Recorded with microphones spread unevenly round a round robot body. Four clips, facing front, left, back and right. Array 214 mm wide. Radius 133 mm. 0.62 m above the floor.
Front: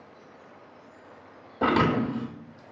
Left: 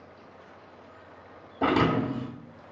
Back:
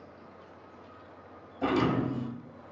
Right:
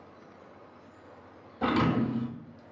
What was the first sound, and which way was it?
A thud, 25° left.